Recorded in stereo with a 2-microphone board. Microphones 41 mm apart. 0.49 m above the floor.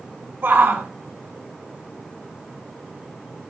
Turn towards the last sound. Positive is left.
turn(degrees=-65)  # may be behind; listen again after turning